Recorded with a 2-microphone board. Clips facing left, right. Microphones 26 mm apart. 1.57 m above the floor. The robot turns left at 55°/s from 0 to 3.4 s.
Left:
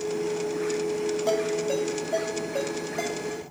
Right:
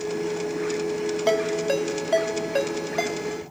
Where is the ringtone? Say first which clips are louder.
Right 5 dB; 40° right (ahead or behind), 2.5 m; by 3.4 s 20° right (ahead or behind), 2.5 m.